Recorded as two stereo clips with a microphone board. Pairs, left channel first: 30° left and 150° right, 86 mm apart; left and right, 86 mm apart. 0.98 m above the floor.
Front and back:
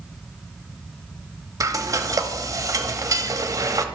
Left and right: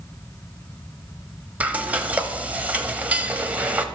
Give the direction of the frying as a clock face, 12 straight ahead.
5 o'clock.